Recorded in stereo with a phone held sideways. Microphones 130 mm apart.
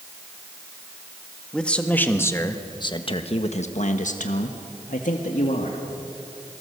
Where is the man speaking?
5° left (ahead or behind), 1.8 m; by 5.8 s 70° left (ahead or behind), 2 m.